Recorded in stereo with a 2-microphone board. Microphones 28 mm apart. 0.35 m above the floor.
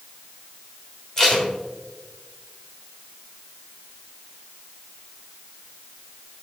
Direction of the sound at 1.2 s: 20° left (ahead or behind).